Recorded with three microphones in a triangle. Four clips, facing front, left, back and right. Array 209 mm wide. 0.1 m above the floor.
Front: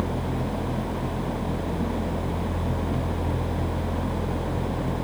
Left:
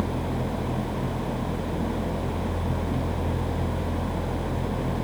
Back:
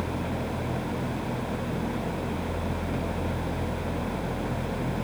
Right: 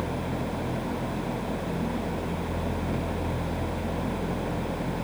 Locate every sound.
Only background noise.